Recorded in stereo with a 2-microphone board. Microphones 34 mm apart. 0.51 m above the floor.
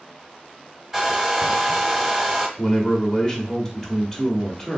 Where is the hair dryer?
15° right (ahead or behind), 0.7 m.